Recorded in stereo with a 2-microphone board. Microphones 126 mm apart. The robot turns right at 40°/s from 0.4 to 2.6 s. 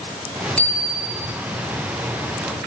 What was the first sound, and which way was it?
A bicycle bell, 170° left.